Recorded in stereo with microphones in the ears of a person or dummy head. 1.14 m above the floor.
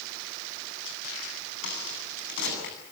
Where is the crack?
60° left (ahead or behind), 9 m.